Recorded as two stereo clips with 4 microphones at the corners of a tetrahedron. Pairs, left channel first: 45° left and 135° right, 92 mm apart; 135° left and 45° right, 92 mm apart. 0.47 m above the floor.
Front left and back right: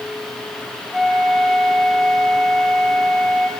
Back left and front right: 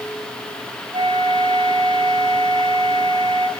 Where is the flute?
50° right, 4 m.